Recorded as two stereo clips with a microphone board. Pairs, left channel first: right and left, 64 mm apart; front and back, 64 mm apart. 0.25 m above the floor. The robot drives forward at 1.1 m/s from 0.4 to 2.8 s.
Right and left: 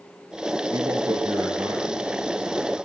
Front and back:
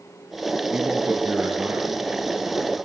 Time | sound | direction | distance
0.7 | a man speaking | 105° left | 4.5 m